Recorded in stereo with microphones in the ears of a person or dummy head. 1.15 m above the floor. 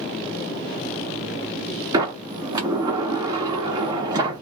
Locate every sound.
1.9 s a sliding door: 20° right (ahead or behind), 0.8 m